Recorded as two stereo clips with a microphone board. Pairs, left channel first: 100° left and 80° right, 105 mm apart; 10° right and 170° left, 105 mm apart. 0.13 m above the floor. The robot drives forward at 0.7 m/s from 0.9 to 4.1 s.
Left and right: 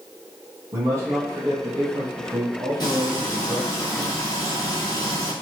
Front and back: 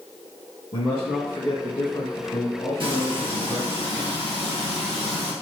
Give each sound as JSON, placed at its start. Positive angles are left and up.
{"t": 0.7, "sound": "a man speaking", "azimuth_deg": -25, "distance_m": 2.0}
{"t": 2.8, "sound": "frying", "azimuth_deg": 145, "distance_m": 1.6}